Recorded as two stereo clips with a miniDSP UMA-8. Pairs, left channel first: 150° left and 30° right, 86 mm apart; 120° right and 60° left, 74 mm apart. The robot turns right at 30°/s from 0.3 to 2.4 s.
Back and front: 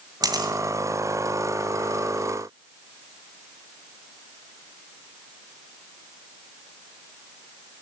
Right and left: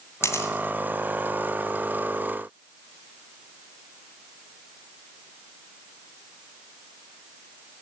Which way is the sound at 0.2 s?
70° right.